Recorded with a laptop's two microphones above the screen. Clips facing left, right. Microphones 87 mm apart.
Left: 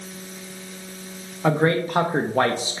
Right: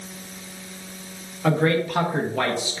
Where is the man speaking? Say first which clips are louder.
Left 1 dB; 25° left (ahead or behind), 0.7 m; by 2.8 s 30° left (ahead or behind), 0.6 m.